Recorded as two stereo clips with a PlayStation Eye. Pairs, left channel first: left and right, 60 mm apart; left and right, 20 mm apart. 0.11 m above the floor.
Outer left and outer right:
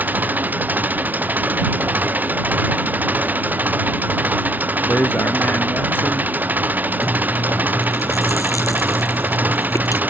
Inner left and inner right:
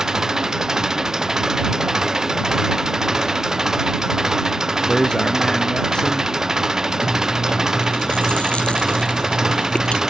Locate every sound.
0.0 s an engine running: 30° right (ahead or behind)
4.9 s a man speaking: 35° left (ahead or behind)
7.0 s chewing: 65° left (ahead or behind)